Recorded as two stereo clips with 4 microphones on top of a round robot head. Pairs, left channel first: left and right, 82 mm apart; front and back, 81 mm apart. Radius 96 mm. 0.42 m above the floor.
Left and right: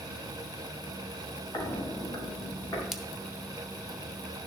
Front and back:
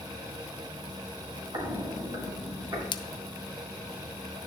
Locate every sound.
1.5 s footsteps: 140° left, 3.5 m; by 2.8 s 135° left, 5 m
2.9 s a splash: 5° right, 0.7 m